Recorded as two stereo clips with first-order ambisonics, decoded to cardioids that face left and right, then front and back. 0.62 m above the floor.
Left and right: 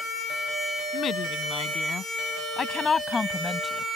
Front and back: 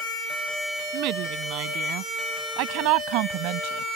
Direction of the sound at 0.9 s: 150° left.